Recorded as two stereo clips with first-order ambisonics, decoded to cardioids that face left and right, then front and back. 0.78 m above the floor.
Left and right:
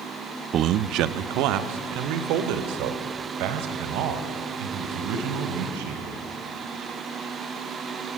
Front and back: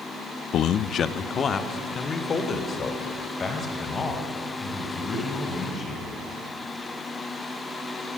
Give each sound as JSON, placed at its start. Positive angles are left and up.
{"t": 0.5, "sound": "a man speaking", "azimuth_deg": -40, "distance_m": 0.5}